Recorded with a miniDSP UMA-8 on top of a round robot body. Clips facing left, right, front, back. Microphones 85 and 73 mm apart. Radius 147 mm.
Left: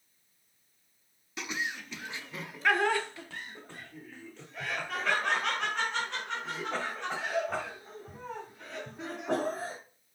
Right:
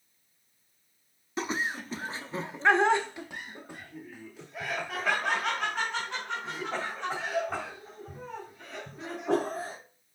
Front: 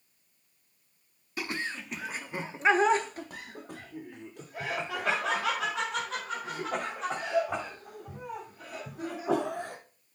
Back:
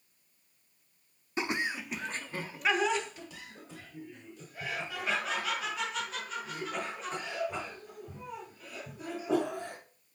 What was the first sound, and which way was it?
Laughter, 125° right.